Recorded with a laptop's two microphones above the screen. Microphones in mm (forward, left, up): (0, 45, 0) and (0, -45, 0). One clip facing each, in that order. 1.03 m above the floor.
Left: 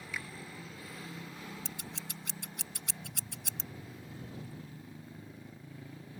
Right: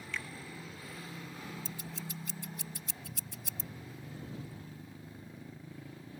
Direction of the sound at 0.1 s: 10° left (ahead or behind).